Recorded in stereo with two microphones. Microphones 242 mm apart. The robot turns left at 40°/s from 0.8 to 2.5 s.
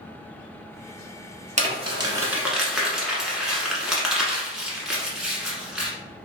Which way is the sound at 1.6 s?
30° right (ahead or behind).